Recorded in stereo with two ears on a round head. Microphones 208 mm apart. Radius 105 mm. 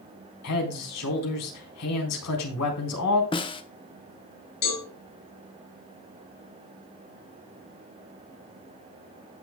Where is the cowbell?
50° left (ahead or behind), 6 m.